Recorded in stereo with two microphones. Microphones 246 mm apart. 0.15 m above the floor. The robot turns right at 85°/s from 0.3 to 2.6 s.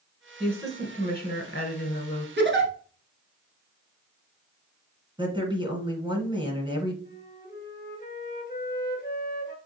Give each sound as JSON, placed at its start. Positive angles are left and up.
{"t": 0.4, "sound": "a woman speaking", "azimuth_deg": 5, "distance_m": 1.3}
{"t": 2.4, "sound": "a giggle", "side_deg": -50, "distance_m": 1.3}
{"t": 5.2, "sound": "a woman speaking", "side_deg": -20, "distance_m": 1.5}
{"t": 7.0, "sound": "a flute", "side_deg": 40, "distance_m": 1.4}